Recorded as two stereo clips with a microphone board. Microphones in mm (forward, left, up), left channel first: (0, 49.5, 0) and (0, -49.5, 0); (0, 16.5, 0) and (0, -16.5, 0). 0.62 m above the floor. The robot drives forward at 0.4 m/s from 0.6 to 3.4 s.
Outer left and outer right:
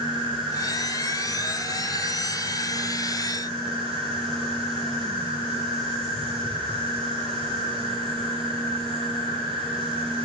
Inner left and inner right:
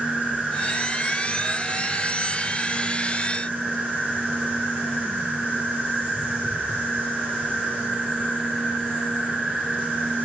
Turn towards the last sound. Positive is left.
turn(degrees=-75)  # may be behind; listen again after turning